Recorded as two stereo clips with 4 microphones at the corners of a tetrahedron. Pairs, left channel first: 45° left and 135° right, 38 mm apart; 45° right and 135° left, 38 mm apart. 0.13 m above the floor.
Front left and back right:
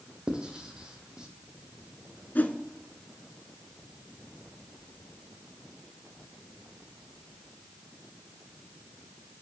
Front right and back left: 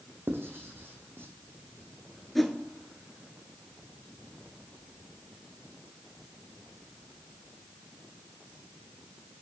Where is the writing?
155° left, 1.1 m.